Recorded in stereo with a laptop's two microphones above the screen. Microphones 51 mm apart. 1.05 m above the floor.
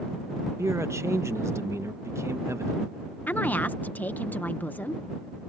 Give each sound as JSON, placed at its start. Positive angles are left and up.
{"t": 0.6, "sound": "a man speaking", "side_deg": -70}
{"t": 3.3, "sound": "a woman speaking", "side_deg": 40}